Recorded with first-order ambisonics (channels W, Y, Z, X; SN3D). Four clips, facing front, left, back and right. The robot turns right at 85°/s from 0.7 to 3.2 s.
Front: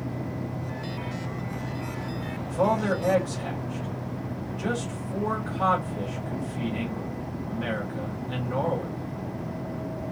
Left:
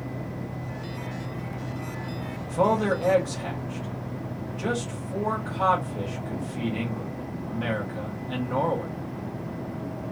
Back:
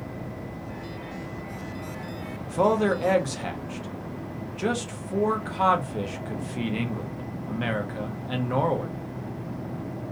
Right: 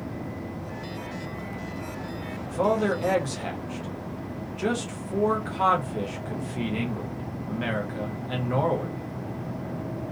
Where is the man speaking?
135° left, 0.8 m; by 8.9 s 160° right, 0.8 m.